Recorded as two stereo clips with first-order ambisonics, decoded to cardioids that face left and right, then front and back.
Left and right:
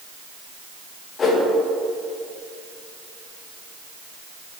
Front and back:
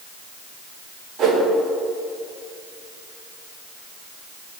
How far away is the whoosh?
About 1.1 m.